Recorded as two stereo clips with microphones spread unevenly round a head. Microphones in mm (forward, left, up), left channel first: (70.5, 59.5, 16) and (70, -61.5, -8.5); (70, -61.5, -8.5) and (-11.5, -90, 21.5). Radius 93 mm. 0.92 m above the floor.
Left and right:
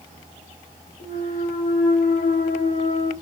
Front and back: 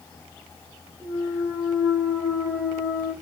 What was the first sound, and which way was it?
A clunk, 110° left.